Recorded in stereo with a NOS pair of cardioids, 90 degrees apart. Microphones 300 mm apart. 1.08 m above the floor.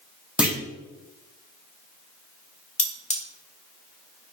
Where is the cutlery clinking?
25° left, 1.0 m.